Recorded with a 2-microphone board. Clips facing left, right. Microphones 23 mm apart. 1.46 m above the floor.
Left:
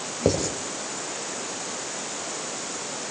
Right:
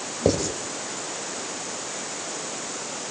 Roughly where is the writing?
Centre.